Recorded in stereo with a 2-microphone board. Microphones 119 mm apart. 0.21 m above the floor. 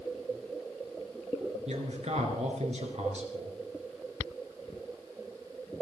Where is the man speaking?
65° right (ahead or behind), 4 m.